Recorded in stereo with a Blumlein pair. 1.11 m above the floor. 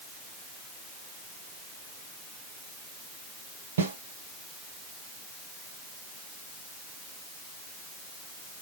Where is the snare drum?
65° right, 3 m.